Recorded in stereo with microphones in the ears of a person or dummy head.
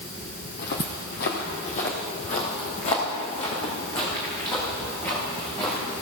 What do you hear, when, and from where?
0.5 s footsteps: 55° left (ahead or behind), 2 m; by 5.9 s 15° left (ahead or behind), 4 m